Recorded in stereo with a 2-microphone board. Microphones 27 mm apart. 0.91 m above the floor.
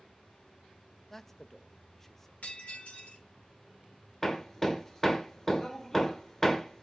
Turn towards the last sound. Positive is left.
turn(degrees=20)  # may be behind; listen again after turning